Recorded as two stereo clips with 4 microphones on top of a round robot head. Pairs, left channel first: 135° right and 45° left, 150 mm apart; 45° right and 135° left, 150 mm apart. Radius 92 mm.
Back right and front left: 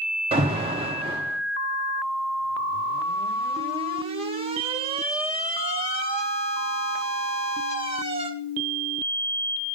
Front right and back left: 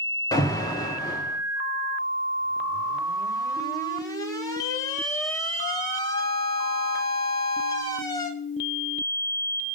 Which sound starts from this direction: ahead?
An alarm, at 0.3 s.